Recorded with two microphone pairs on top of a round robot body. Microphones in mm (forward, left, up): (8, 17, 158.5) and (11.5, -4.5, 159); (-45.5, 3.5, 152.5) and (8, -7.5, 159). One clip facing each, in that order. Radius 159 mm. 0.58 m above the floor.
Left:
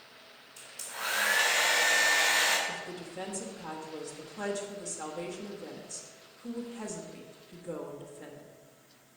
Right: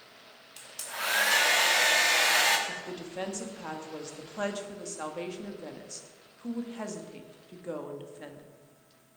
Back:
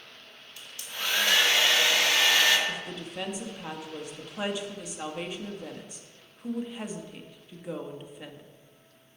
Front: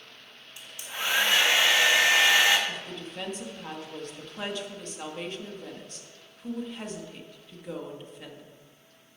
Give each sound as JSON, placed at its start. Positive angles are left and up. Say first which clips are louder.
{"t": 0.6, "sound": "a hair dryer", "louder": "right 3 dB, front 2 dB", "azimuth_deg": -85, "distance_m": 1.8}
{"t": 2.7, "sound": "a woman speaking", "louder": "right 1 dB, back 1 dB", "azimuth_deg": -120, "distance_m": 1.5}